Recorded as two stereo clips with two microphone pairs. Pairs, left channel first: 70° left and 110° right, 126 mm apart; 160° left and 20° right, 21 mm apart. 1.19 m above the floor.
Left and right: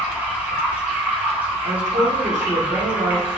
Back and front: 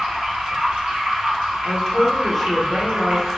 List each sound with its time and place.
0.0 s running water: 30° right, 1.1 m
1.6 s a woman speaking: 120° right, 0.9 m